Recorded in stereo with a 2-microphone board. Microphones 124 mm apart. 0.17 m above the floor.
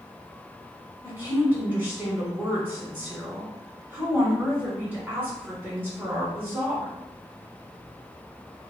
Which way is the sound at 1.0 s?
15° right (ahead or behind).